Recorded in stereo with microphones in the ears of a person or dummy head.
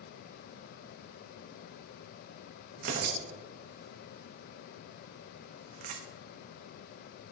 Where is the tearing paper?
55° right (ahead or behind), 1.1 m.